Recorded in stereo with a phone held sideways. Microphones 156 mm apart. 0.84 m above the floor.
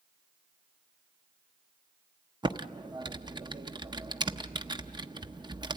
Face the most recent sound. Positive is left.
turn(degrees=-30)  # may be behind; listen again after turning